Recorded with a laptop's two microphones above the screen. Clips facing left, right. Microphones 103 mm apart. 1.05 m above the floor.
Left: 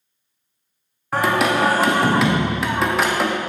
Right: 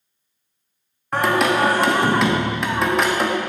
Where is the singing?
Centre (ahead or behind), 0.8 m.